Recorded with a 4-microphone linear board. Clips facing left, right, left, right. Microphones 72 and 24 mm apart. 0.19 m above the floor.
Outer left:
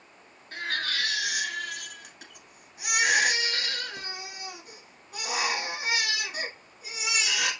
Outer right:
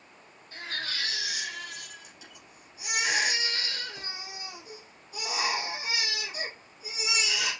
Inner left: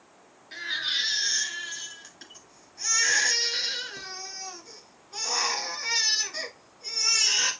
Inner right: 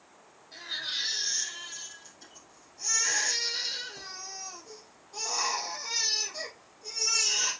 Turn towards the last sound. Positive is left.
turn(degrees=60)  # may be behind; listen again after turning